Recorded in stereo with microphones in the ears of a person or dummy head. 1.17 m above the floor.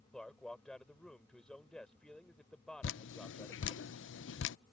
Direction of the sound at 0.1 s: Centre (ahead or behind).